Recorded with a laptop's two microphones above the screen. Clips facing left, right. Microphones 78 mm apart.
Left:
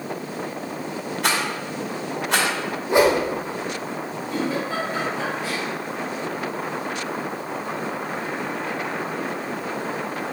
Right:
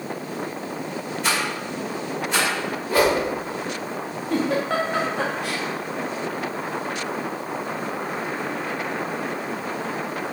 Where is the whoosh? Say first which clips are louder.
Left 2 dB; 20° left (ahead or behind), 1.1 m.